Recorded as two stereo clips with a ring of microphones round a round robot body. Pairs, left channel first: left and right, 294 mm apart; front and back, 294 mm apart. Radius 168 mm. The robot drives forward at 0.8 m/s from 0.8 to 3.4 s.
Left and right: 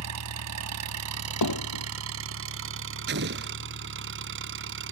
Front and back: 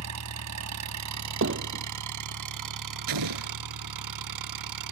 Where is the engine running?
135° right; by 4.9 s 145° right.